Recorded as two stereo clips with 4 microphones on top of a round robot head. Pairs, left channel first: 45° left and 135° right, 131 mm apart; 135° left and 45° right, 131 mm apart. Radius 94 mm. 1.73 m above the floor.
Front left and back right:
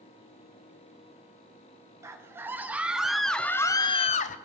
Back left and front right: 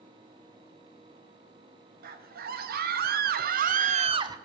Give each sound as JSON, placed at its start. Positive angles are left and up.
{"t": 2.0, "sound": "a scream", "azimuth_deg": -65, "distance_m": 1.8}